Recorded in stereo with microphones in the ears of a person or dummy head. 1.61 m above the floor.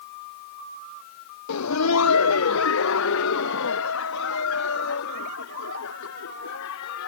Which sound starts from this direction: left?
Laughter, at 1.5 s.